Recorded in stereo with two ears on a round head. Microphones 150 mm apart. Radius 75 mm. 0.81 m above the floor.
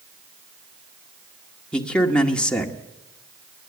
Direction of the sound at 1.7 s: 5° left (ahead or behind).